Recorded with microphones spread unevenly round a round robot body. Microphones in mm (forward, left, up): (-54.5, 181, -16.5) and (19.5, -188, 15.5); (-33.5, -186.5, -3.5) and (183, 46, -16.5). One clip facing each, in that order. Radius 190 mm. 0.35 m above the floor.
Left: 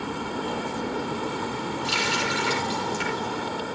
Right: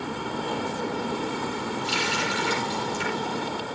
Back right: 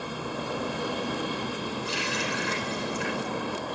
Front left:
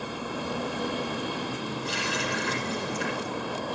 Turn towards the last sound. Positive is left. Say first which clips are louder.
# even, even
turn(degrees=120)